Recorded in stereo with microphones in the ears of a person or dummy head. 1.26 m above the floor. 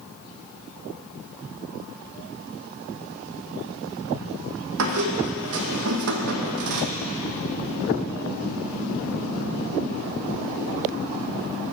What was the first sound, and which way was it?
A squeak, 65° right (ahead or behind).